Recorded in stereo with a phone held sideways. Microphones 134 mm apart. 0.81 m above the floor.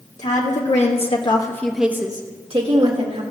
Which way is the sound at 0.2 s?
65° left (ahead or behind).